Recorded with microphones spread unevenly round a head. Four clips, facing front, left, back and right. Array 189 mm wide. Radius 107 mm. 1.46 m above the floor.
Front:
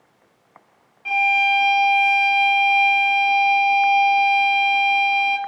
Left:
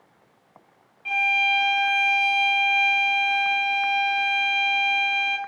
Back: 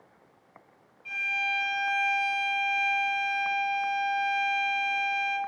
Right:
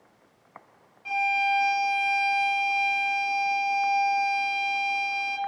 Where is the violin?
5° left, 2.5 m.